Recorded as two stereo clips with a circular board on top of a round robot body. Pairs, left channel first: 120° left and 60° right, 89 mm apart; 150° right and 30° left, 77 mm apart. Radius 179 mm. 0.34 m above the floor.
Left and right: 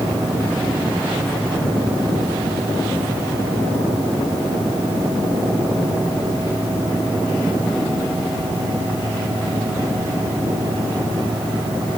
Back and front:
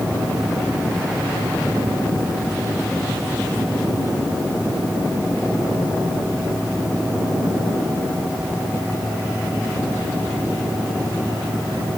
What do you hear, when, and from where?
Only background noise.